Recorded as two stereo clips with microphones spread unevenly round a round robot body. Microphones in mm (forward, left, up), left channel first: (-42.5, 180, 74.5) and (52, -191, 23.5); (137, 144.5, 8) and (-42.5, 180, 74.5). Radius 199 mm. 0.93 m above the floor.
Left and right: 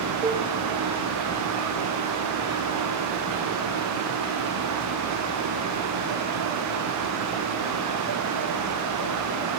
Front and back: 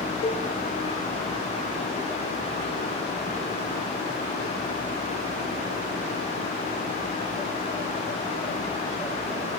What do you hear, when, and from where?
0.2 s a cowbell: 10° right, 3.5 m